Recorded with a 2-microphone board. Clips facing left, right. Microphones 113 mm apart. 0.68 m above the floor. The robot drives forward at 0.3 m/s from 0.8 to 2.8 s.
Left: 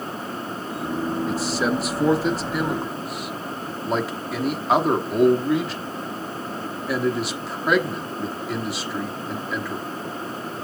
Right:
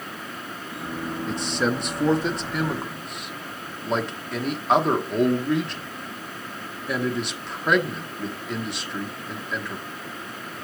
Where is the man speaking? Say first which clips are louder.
Right 1 dB; 5° left (ahead or behind), 0.6 m; by 9.8 s centre (ahead or behind), 0.9 m.